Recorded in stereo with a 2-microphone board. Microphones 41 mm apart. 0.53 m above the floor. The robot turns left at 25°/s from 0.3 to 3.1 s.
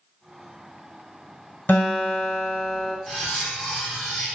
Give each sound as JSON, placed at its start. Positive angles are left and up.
{"t": 1.7, "sound": "a guitar", "azimuth_deg": 55, "distance_m": 1.2}
{"t": 3.1, "sound": "cutlery clinking", "side_deg": 0, "distance_m": 0.8}